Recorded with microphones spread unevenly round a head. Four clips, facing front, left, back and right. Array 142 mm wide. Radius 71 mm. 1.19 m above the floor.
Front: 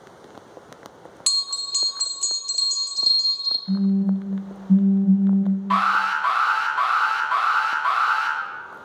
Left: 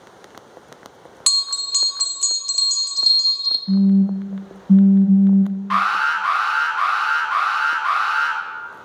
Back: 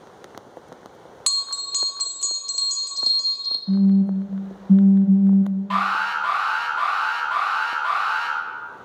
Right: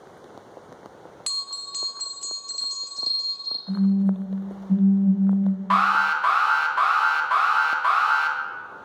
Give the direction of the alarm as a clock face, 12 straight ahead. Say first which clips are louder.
Right 1 dB, front 2 dB; 3 o'clock.